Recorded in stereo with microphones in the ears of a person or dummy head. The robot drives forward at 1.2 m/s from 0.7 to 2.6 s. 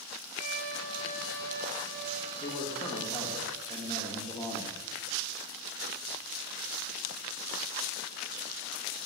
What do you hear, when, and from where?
0.4 s a violin: 75° right (ahead or behind), 1.0 m; by 3.4 s 25° right (ahead or behind), 2.5 m
2.4 s a man speaking: 30° left (ahead or behind), 1.1 m; by 4.8 s 25° left (ahead or behind), 1.3 m